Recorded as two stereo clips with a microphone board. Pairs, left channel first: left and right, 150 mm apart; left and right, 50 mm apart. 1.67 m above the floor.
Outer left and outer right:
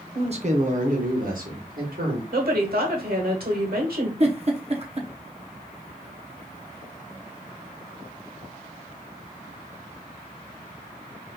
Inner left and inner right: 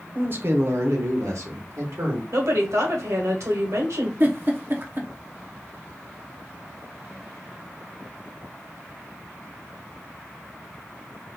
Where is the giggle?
45° right (ahead or behind), 0.7 m.